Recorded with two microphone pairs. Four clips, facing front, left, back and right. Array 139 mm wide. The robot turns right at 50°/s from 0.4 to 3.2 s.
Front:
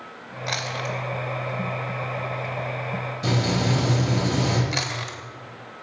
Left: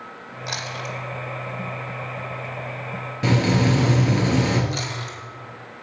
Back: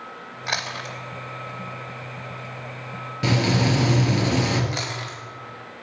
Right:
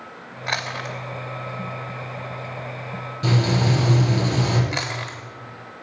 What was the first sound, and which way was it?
Chewing, 120° right.